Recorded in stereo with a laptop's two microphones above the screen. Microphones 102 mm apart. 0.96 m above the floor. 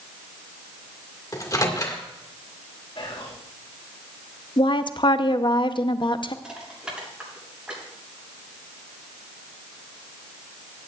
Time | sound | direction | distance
1.3 | a microwave | 35° left (ahead or behind) | 1.9 m
3.0 | whispering | 60° left (ahead or behind) | 2 m
4.6 | a woman speaking | 50° left (ahead or behind) | 0.8 m
6.4 | crushing | 10° right (ahead or behind) | 7 m